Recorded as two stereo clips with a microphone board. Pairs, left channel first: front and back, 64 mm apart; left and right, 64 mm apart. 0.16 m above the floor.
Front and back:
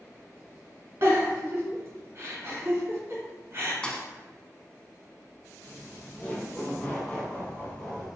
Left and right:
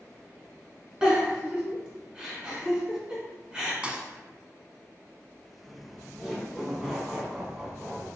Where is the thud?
50° right, 0.7 m.